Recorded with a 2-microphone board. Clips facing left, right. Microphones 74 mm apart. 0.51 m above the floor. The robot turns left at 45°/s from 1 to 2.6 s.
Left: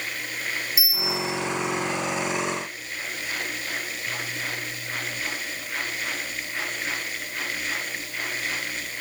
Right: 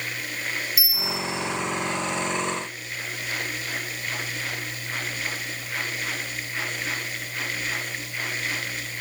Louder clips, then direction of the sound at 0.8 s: Left 1 dB; 25° left (ahead or behind).